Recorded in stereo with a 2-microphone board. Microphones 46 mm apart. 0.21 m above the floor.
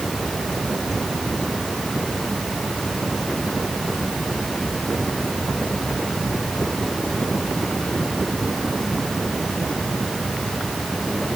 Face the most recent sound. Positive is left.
No sound to turn to.